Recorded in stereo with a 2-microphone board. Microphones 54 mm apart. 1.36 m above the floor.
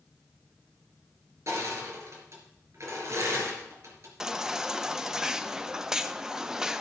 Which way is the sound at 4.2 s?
10° right (ahead or behind).